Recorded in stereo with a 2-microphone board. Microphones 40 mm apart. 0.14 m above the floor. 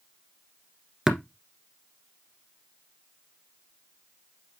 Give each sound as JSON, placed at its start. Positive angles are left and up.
{"t": 1.1, "sound": "tapping", "side_deg": -10, "distance_m": 1.4}